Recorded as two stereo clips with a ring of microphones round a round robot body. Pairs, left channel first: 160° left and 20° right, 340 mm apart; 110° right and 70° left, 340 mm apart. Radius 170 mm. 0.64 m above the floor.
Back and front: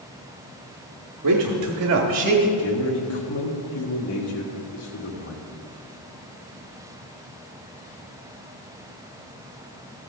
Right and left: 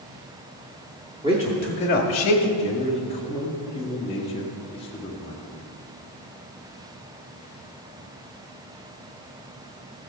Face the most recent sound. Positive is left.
turn(degrees=180)